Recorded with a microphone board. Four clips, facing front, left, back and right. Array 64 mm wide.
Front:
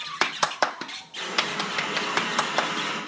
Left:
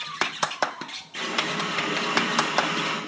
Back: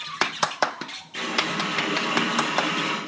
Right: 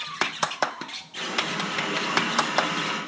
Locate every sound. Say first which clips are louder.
1.1 s a running tap: left 1 dB, back 2 dB; 150° left, 7.5 m